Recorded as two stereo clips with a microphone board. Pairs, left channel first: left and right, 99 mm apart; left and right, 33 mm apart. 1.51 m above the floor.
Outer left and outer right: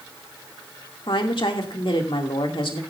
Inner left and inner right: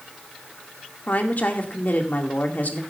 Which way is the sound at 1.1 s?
60° left (ahead or behind).